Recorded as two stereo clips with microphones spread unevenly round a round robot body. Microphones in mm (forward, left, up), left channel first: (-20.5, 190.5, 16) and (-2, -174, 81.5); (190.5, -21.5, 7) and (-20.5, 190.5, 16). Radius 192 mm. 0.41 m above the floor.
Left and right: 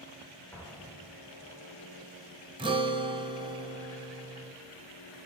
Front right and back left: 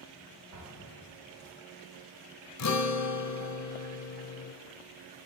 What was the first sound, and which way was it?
An explosion, 175° left.